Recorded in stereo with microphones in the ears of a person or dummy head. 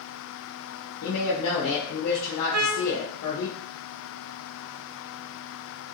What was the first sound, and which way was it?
A woman speaking, 75° left (ahead or behind).